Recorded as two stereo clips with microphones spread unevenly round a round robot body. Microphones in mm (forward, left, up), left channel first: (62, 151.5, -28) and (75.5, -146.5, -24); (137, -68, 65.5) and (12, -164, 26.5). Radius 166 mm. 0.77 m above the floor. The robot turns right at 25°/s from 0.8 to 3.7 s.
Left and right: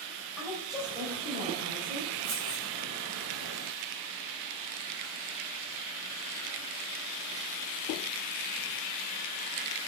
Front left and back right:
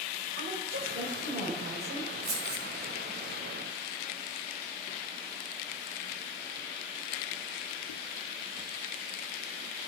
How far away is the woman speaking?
About 3.5 m.